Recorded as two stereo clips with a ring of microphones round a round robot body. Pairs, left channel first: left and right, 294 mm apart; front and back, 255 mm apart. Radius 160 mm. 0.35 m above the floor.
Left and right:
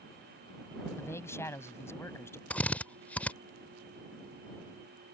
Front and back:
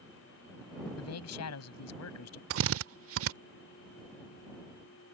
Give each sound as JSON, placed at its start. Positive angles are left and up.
{"t": 1.0, "sound": "a man speaking", "azimuth_deg": 10}
{"t": 2.5, "sound": "a drill", "azimuth_deg": 175}